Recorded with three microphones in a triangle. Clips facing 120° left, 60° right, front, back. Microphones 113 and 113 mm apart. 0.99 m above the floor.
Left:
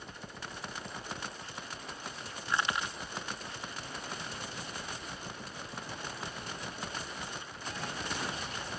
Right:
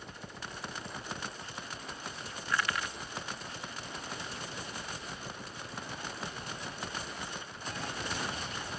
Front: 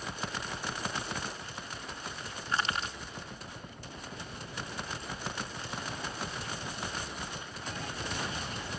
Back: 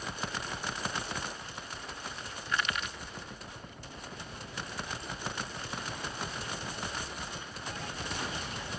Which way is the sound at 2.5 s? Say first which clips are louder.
Left 1 dB, front 1 dB; 55° left.